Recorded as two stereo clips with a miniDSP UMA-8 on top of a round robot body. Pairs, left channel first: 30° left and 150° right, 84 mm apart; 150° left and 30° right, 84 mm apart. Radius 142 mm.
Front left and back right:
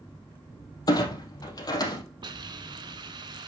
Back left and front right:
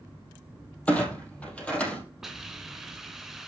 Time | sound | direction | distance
0.9 | a clunk | 75° left | 3.5 m
2.2 | a hiss | 115° right | 2.0 m